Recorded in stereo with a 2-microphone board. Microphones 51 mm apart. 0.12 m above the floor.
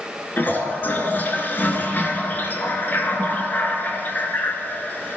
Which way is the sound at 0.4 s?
40° left (ahead or behind).